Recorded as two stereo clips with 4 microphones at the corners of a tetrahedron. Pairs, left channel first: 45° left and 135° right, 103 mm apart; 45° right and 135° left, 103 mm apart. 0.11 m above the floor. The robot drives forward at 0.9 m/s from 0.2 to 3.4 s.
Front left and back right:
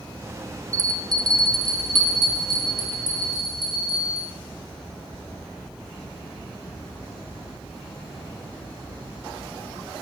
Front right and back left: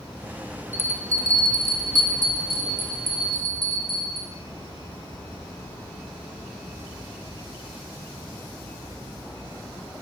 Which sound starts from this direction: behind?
A bell, at 0.7 s.